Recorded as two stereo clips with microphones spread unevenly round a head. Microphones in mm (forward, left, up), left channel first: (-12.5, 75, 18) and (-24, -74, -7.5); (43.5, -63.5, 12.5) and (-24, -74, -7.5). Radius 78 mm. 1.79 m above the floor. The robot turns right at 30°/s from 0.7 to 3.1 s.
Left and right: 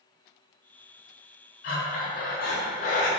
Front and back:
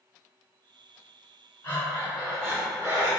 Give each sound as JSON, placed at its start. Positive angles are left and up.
{"t": 1.6, "sound": "breathing", "azimuth_deg": 70, "distance_m": 0.7}